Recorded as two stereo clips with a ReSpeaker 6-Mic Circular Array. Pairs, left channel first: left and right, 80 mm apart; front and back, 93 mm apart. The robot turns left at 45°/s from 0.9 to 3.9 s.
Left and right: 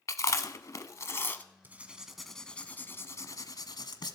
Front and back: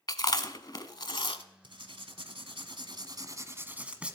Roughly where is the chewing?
Ahead left.